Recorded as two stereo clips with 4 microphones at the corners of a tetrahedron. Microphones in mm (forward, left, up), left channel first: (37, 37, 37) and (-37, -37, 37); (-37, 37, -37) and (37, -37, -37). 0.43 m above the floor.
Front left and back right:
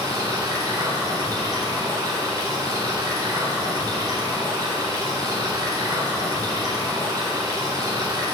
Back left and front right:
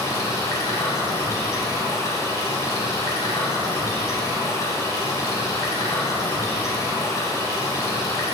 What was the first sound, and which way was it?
Running water, straight behind.